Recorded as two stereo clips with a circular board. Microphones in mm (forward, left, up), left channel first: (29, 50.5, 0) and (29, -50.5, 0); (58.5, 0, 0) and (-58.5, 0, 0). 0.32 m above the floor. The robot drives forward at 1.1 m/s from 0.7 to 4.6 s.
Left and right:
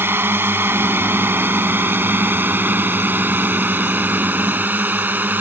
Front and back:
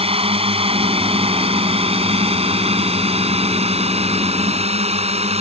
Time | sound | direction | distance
0.0 | a drone | 155° right | ?